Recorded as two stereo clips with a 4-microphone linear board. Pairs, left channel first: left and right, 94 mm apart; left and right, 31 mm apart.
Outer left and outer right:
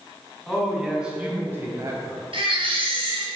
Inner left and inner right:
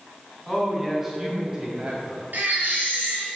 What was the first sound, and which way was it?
A man speaking, 5° left (ahead or behind).